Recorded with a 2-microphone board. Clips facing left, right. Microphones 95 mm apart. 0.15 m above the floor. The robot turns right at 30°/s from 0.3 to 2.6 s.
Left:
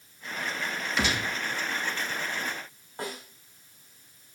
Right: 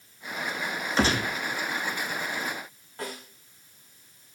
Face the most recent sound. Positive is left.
turn(degrees=25)  # may be behind; listen again after turning